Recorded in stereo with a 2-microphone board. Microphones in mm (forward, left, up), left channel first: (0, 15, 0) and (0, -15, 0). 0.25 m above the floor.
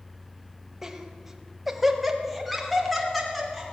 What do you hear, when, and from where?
0.8 s laughter: 15° right (ahead or behind), 1.0 m; by 3.6 s centre (ahead or behind), 3 m